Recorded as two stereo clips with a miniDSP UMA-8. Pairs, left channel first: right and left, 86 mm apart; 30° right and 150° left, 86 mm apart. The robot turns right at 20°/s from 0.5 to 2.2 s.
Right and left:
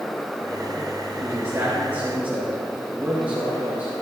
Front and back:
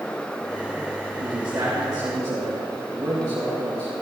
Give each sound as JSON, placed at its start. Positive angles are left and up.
{"t": 1.2, "sound": "a man speaking", "azimuth_deg": 140, "distance_m": 2.5}